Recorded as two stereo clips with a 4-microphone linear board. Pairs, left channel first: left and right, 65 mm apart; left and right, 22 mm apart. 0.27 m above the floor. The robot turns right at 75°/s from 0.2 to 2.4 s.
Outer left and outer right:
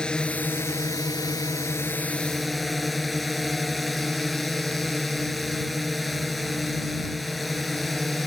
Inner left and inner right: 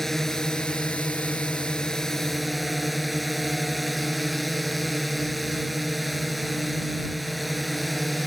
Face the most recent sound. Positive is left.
turn(degrees=180)